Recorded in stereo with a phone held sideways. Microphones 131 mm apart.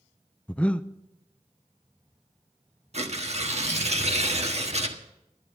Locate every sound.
0.5 s breathing: 10° left (ahead or behind), 0.5 m
2.9 s tearing paper: 55° right (ahead or behind), 1.4 m